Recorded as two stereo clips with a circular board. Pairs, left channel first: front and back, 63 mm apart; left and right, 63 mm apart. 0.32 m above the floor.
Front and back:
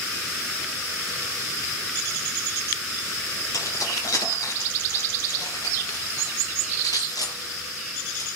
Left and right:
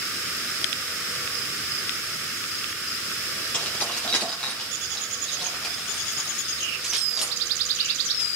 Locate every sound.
3.5 s keys jangling: 20° left, 6.5 m; by 8.3 s 15° right, 5.5 m